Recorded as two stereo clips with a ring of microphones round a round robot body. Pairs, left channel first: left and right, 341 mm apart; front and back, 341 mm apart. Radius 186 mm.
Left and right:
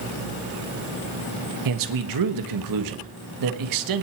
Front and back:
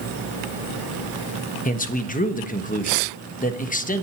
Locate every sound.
1.6 s a man speaking: 65° right, 1.3 m